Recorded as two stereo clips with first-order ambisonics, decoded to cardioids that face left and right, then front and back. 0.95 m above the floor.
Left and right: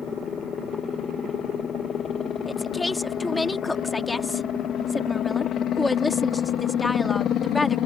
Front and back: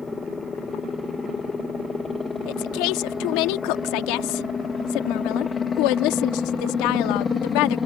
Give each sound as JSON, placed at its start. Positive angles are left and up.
{"t": 0.0, "sound": "a helicopter", "azimuth_deg": 55}
{"t": 2.5, "sound": "a woman speaking", "azimuth_deg": 5}